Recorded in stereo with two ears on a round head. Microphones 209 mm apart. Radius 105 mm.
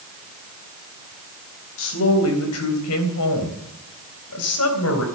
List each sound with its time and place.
1.8 s a woman speaking: 65° left (ahead or behind), 4 m; by 5.0 s 60° left (ahead or behind), 4 m